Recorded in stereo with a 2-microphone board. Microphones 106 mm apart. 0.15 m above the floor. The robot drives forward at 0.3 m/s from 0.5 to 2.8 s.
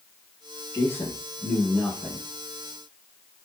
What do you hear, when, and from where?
0.7 s a man speaking: 20° left (ahead or behind), 1.1 m